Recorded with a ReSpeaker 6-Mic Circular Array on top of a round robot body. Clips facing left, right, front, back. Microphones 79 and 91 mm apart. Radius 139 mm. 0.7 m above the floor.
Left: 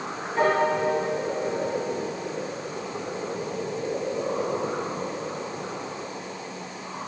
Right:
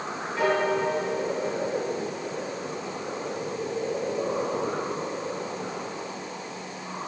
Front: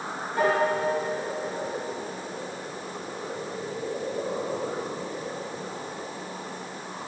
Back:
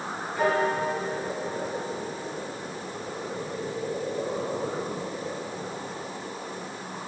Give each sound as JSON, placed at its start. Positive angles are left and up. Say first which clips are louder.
{"t": 0.4, "sound": "a piano", "louder": "left 2 dB, front 1 dB", "azimuth_deg": 40, "distance_m": 3.0}